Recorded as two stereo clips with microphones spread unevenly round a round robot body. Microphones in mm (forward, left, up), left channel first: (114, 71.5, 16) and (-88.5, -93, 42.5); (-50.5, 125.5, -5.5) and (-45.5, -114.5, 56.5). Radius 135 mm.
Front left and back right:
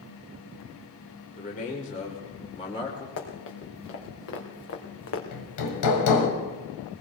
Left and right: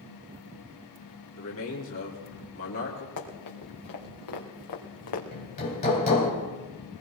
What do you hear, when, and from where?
1.4 s a man speaking: 95° left, 2.5 m; by 3.1 s 115° left, 3 m
3.2 s running footsteps: 85° left, 4 m; by 5.2 s 80° left, 2.5 m
5.3 s hammering: 25° left, 2.5 m